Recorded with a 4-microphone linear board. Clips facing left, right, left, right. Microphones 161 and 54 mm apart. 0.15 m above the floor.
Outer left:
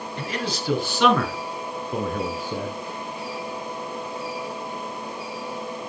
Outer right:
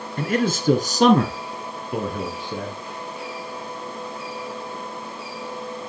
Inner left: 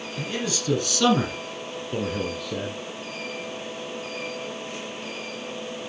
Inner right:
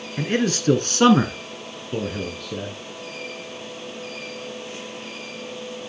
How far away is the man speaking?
About 1.9 m.